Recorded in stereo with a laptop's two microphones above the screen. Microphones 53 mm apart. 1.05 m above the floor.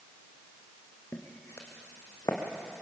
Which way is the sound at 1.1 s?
50° left (ahead or behind).